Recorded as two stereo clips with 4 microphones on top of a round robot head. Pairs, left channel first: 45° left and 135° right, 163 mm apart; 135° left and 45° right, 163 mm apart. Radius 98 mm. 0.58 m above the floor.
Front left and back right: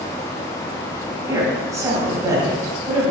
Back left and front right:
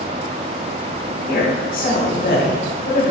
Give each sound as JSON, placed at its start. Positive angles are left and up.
{"t": 1.3, "sound": "a woman speaking", "azimuth_deg": 155, "distance_m": 2.0}